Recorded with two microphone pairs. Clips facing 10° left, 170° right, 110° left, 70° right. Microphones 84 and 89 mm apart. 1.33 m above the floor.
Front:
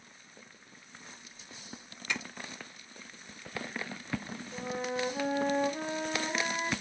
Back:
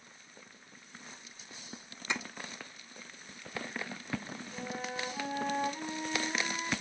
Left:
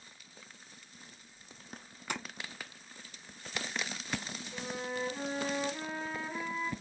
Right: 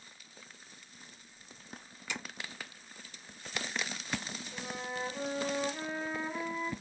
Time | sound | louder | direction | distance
2.1 | tapping | back 1 dB, left 3 dB | 135° left | 1.1 m
4.5 | a flute | front 5 dB, left 2 dB | 20° left | 3 m